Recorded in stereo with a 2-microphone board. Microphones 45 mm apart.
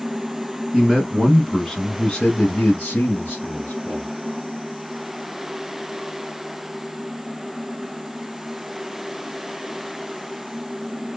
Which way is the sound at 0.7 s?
15° right (ahead or behind).